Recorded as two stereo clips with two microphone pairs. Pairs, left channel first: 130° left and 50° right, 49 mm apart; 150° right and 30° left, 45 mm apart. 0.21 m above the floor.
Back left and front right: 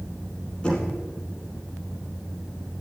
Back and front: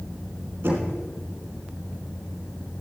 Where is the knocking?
55° left, 4 m.